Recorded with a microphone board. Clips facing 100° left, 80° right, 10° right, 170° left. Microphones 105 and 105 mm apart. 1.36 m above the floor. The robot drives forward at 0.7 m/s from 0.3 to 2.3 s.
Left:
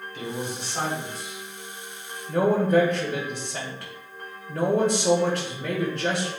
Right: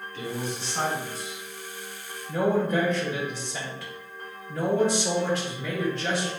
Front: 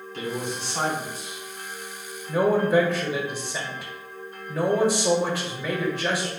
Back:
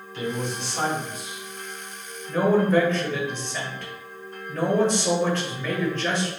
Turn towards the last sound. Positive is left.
turn(degrees=65)